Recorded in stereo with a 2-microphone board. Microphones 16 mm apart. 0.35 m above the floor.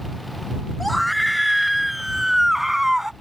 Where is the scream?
5° left (ahead or behind); by 3.1 s 25° right (ahead or behind).